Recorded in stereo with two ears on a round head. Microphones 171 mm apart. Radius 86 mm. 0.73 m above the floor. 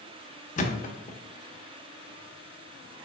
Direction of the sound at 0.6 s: 40° left (ahead or behind).